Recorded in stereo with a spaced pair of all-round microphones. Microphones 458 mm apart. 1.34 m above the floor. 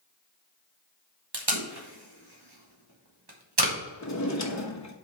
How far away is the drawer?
About 1.0 m.